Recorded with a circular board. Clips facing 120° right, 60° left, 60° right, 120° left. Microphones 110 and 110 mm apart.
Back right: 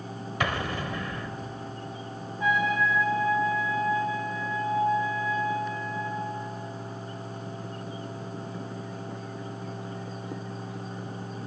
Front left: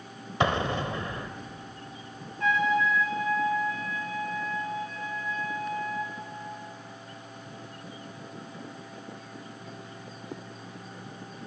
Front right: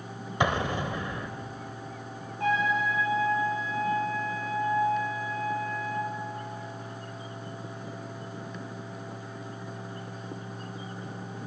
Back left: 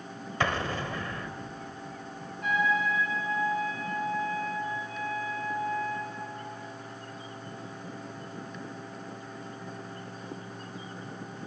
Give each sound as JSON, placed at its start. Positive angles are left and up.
{"t": 0.4, "sound": "an explosion", "azimuth_deg": 5, "distance_m": 1.3}
{"t": 2.4, "sound": "a trumpet", "azimuth_deg": -40, "distance_m": 9.5}